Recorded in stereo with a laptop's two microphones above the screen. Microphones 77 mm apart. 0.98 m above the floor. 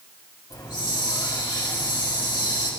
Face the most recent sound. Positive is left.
turn(degrees=65)  # may be behind; listen again after turning